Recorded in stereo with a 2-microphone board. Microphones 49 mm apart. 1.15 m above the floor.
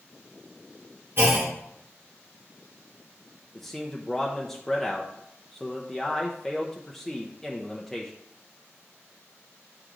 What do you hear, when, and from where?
1.2 s a clunk: 50° right (ahead or behind), 2 m
3.5 s a man speaking: 5° left (ahead or behind), 0.8 m